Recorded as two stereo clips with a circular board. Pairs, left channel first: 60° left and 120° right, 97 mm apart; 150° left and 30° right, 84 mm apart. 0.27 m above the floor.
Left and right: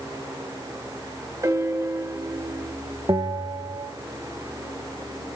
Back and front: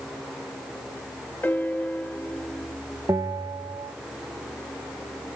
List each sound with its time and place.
1.4 s a piano: 155° right, 1.0 m
3.1 s a bell: 75° right, 0.9 m